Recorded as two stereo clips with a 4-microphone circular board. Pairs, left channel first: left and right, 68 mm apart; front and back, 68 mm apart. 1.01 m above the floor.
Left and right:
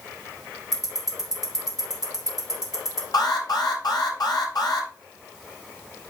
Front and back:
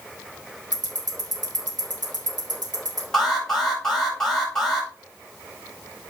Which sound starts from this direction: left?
An alarm, at 3.1 s.